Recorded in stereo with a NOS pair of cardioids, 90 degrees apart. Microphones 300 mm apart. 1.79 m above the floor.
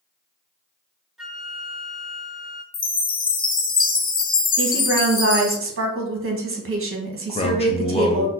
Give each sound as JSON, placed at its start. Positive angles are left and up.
{"t": 1.2, "sound": "a flute", "azimuth_deg": 0, "distance_m": 1.3}
{"t": 2.7, "sound": "a chime", "azimuth_deg": 30, "distance_m": 0.8}
{"t": 4.6, "sound": "a woman speaking", "azimuth_deg": -45, "distance_m": 1.6}
{"t": 7.3, "sound": "a man speaking", "azimuth_deg": 20, "distance_m": 1.2}